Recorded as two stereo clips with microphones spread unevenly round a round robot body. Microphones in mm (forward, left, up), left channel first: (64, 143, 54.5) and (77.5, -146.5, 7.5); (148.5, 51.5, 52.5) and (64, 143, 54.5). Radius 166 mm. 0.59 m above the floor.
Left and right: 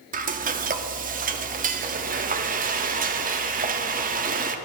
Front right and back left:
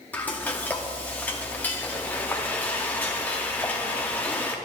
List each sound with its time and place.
0.1 s frying: 115° right, 0.7 m